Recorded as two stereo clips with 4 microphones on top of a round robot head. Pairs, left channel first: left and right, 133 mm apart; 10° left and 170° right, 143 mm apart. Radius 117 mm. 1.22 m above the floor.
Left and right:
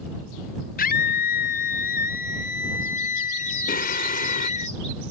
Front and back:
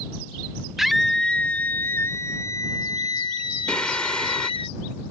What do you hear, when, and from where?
0.8 s a scream: 100° left; by 4.7 s 60° left
3.7 s singing: 90° left